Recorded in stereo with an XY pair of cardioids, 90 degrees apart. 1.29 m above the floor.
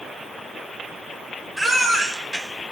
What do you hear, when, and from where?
1.6 s a baby crying: 10° right, 3.5 m